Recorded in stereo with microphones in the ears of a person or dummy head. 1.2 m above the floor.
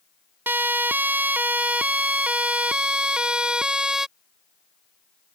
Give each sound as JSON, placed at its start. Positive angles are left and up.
{"t": 0.5, "sound": "a siren", "side_deg": -15}